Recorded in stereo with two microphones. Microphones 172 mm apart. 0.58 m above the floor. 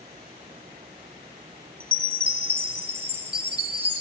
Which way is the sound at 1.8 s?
35° right (ahead or behind).